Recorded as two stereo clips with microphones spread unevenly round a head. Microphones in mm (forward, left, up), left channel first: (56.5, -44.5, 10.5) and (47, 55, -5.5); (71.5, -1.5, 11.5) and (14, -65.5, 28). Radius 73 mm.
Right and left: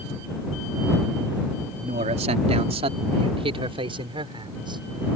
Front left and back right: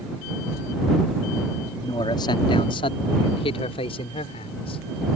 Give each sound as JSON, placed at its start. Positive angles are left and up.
{"t": 1.8, "sound": "a man speaking", "azimuth_deg": 105}